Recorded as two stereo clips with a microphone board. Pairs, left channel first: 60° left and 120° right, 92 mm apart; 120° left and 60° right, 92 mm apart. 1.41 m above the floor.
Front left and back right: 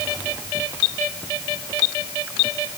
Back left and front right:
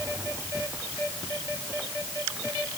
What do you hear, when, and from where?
Only background noise.